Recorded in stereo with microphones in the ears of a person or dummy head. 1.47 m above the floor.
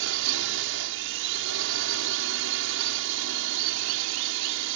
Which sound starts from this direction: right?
A drone, at 0.0 s.